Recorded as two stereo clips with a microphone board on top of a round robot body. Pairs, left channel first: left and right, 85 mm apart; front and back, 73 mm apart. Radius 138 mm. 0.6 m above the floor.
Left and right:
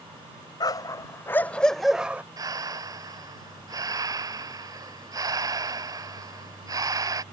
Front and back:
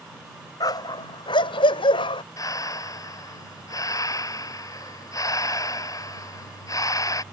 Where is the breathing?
45° right.